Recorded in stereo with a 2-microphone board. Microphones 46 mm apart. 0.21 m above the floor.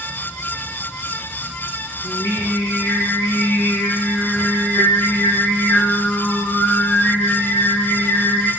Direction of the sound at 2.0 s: 70° left (ahead or behind).